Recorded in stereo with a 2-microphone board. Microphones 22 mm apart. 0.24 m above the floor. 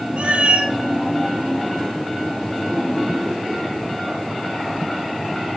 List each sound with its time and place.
0.2 s a cat meowing: 55° right (ahead or behind), 1.3 m